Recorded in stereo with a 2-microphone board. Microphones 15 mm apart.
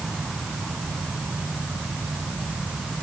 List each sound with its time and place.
Only background noise.